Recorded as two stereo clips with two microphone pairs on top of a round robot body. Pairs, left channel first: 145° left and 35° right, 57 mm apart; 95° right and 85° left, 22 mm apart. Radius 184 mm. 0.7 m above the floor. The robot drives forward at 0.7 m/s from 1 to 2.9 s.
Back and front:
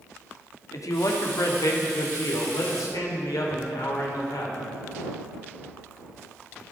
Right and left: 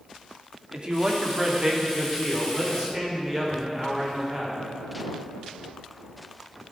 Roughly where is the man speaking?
Behind left.